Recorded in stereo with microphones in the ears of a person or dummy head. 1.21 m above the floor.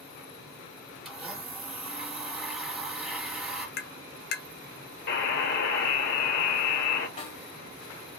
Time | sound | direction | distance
1.1 | a blender | 5° right (ahead or behind) | 1.0 m
3.8 | tapping | 55° left (ahead or behind) | 0.7 m
5.1 | a buzzer | 55° left (ahead or behind) | 1.3 m
7.2 | a snare drum | 30° left (ahead or behind) | 1.4 m